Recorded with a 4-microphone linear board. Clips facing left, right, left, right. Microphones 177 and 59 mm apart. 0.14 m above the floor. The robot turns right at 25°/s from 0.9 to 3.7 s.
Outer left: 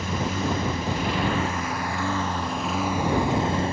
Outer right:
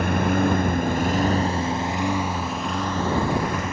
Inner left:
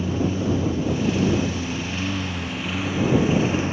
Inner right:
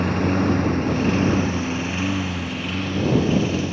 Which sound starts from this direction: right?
A lawn mower, at 0.0 s.